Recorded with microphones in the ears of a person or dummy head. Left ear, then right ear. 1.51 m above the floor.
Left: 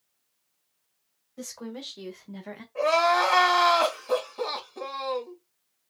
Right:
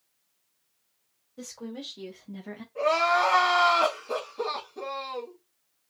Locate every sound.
1.4 s a woman speaking: 35° left (ahead or behind), 2.0 m; by 2.6 s 30° left (ahead or behind), 1.1 m
2.8 s crying: 30° left (ahead or behind), 1.9 m